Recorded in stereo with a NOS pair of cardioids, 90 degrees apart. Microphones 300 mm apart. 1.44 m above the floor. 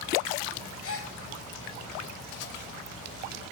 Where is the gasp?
45° left, 2 m.